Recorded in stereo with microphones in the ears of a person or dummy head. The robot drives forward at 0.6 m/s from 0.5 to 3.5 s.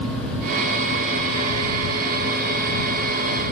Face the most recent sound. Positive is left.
No sound to turn to.